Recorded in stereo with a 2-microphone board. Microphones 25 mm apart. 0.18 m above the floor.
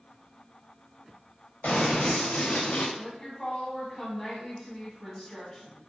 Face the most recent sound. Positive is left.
turn(degrees=20)  # may be behind; listen again after turning